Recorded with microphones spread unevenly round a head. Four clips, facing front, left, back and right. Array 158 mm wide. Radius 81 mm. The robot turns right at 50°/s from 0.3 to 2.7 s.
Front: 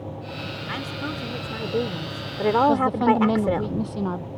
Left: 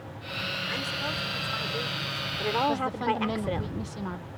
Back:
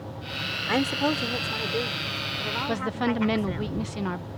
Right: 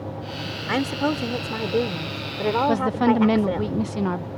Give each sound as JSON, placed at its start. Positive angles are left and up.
{"t": 0.7, "sound": "a woman speaking", "azimuth_deg": -120}
{"t": 2.7, "sound": "a woman speaking", "azimuth_deg": -75}